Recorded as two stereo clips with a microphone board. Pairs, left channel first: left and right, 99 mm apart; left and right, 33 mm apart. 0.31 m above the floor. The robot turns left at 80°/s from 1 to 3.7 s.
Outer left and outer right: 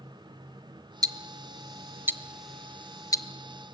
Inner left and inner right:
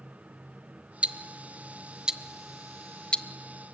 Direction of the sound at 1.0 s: 40° right (ahead or behind).